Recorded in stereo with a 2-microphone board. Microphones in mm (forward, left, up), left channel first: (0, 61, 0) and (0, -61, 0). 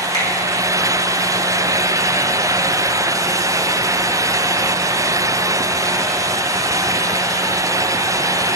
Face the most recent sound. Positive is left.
turn(degrees=40)  # may be behind; listen again after turning